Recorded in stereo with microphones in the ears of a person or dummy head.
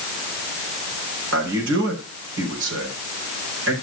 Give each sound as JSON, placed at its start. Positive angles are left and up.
{"t": 1.3, "sound": "a man speaking", "side_deg": -70, "distance_m": 5.0}